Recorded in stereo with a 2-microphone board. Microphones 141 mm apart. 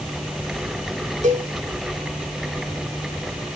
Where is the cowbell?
65° right (ahead or behind), 2.5 m.